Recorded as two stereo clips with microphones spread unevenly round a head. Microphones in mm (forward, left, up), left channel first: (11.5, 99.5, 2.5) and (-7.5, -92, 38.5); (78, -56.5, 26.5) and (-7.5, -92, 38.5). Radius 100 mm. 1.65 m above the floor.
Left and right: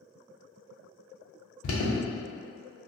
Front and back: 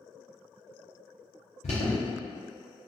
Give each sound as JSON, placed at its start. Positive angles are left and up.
{"t": 1.6, "sound": "an alarm", "azimuth_deg": 60, "distance_m": 0.8}